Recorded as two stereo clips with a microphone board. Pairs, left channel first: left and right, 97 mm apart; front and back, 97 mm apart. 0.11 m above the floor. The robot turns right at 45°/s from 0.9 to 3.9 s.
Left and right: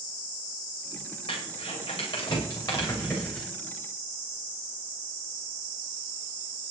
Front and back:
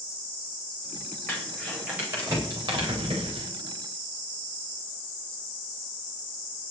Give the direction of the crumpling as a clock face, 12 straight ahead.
10 o'clock.